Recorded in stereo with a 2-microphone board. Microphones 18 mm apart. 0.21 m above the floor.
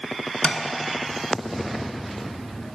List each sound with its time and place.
0.4 s tapping: 50° left (ahead or behind), 0.5 m